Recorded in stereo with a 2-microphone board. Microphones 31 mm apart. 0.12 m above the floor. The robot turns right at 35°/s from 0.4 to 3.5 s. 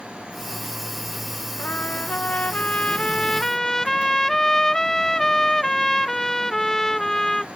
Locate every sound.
1.6 s a trumpet: 100° left; by 7.5 s 165° left